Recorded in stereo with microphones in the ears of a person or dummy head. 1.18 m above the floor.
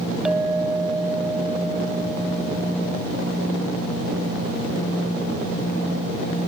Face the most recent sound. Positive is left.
turn(degrees=-5)  # may be behind; listen again after turning